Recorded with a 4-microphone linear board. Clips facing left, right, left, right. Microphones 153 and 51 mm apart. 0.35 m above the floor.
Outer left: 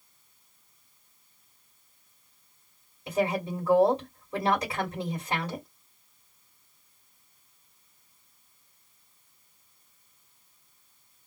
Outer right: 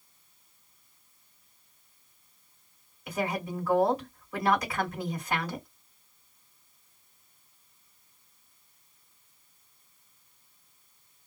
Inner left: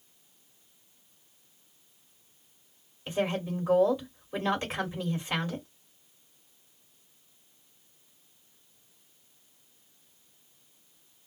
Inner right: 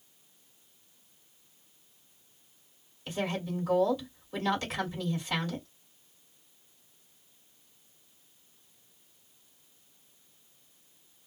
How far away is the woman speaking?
About 1.7 m.